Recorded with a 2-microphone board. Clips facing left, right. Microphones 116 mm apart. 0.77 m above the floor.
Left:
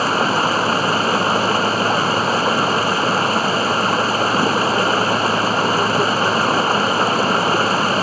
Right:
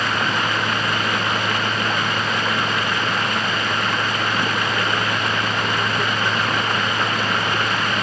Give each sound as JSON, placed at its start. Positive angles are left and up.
{"t": 0.0, "sound": "running water", "side_deg": 35}